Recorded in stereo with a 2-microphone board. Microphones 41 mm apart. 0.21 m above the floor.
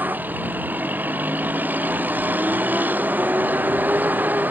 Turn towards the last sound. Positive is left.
turn(degrees=-50)  # may be behind; listen again after turning